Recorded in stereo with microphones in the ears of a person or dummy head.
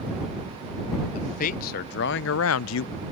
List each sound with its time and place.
1.1 s a man speaking: 40° left (ahead or behind); by 2.9 s 65° left (ahead or behind)